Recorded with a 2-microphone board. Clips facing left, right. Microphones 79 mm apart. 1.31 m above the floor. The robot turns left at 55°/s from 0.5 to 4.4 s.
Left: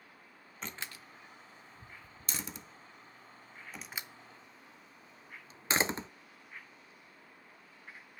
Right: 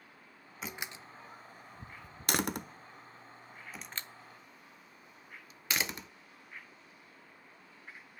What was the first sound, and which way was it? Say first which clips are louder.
A door slam: right 2 dB; 5° right (ahead or behind).